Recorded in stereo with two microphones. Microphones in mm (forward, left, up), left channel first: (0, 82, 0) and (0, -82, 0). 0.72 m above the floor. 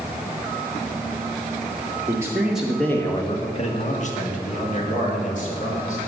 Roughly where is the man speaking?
Centre.